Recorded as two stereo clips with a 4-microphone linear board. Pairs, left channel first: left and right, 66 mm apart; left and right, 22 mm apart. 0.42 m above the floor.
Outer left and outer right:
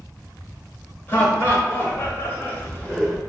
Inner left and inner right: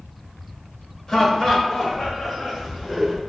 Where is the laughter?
30° left (ahead or behind), 1.5 m; by 3.2 s 15° left (ahead or behind), 1.0 m.